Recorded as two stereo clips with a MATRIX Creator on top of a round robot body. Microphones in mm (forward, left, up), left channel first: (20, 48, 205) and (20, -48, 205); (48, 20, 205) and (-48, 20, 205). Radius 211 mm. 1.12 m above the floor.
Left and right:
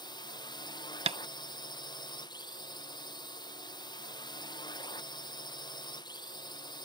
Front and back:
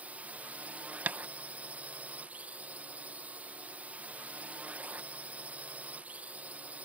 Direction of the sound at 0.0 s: 110° left.